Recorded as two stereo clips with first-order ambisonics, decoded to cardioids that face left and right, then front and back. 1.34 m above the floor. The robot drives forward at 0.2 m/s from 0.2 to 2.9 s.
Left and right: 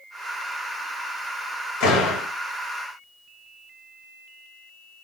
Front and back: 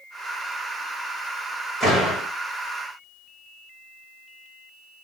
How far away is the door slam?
About 1.6 m.